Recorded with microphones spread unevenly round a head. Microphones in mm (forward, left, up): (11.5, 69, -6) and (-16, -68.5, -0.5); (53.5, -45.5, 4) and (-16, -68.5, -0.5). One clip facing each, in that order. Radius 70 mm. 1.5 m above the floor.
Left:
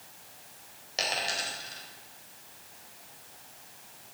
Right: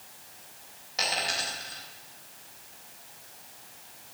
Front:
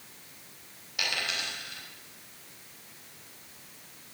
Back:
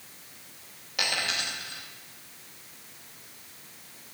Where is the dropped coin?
135° left, 3.5 m.